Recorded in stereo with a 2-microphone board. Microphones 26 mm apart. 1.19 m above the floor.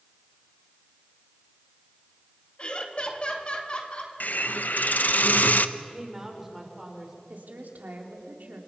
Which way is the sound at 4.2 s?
75° left (ahead or behind).